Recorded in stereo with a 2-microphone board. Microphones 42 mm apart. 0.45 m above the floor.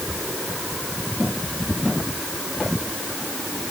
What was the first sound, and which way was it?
Only background noise.